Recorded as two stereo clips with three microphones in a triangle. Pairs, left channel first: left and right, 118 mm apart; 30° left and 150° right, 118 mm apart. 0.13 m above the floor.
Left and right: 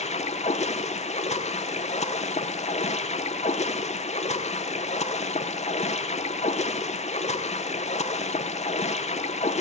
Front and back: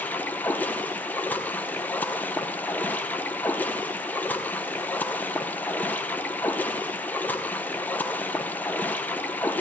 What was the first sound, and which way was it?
Running water, 105° left.